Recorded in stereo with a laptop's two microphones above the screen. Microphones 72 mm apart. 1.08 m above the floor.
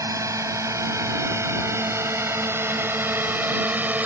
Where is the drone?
45° right (ahead or behind); by 4.0 s 20° right (ahead or behind).